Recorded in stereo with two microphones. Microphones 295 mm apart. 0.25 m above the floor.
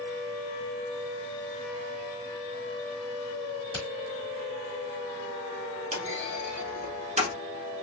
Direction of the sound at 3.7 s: 15° left (ahead or behind).